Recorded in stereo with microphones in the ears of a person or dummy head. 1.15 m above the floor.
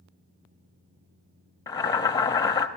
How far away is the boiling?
About 0.7 m.